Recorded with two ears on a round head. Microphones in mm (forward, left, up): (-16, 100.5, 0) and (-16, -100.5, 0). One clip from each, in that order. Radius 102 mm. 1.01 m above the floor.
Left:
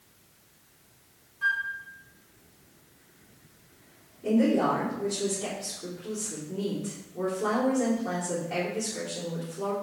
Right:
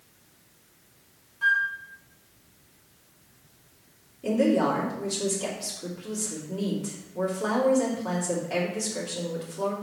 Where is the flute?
25° right (ahead or behind), 1.6 m.